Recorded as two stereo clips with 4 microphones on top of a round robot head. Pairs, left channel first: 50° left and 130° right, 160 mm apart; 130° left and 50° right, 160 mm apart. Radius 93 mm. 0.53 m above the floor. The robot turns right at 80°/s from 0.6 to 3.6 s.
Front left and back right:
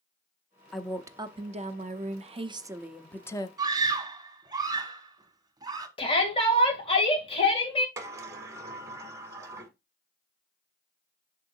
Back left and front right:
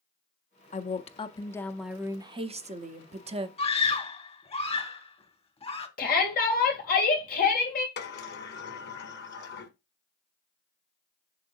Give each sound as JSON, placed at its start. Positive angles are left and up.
{"t": 0.7, "sound": "a woman speaking", "azimuth_deg": 135, "distance_m": 0.8}
{"t": 3.6, "sound": "a scream", "azimuth_deg": 165, "distance_m": 1.5}
{"t": 6.0, "sound": "a shout", "azimuth_deg": 105, "distance_m": 2.5}
{"t": 8.0, "sound": "a sliding door", "azimuth_deg": 155, "distance_m": 1.2}